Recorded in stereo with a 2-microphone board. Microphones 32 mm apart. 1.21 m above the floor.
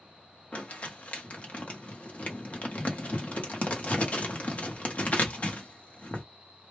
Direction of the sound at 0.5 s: 45° left (ahead or behind).